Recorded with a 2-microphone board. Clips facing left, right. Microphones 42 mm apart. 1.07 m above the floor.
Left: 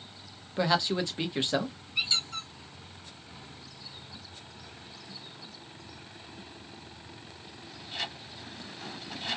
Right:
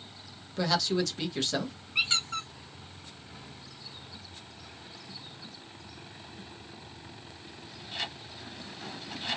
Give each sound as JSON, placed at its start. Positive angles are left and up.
{"t": 0.6, "sound": "a man speaking", "side_deg": 20, "distance_m": 0.8}
{"t": 1.9, "sound": "a squeak", "side_deg": -50, "distance_m": 1.1}